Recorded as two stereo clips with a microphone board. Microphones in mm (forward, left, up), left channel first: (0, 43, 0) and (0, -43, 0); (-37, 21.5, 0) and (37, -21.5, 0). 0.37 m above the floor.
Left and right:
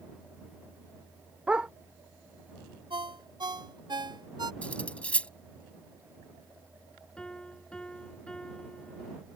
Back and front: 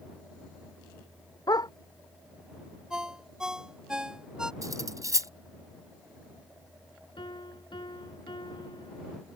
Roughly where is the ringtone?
Right.